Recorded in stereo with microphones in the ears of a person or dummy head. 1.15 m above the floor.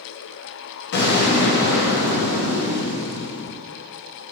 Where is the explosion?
65° left (ahead or behind), 1.2 m.